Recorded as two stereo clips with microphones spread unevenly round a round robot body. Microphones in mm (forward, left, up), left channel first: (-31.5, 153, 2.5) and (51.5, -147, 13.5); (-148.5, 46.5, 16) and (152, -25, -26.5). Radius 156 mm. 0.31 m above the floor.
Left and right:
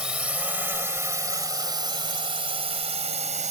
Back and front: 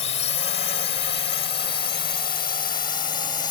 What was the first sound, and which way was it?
A drone, 160° right.